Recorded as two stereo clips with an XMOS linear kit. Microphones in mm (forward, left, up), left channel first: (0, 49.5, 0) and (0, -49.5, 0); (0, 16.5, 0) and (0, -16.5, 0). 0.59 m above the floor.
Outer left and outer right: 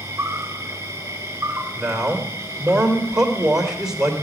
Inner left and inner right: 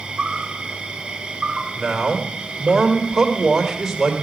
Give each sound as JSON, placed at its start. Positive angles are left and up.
{"t": 0.0, "sound": "an insect", "side_deg": -25, "distance_m": 2.0}
{"t": 1.7, "sound": "a man speaking", "side_deg": -5, "distance_m": 2.5}